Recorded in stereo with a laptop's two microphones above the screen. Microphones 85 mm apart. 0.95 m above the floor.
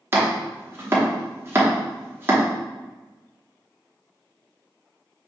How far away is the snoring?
I don't hear snoring.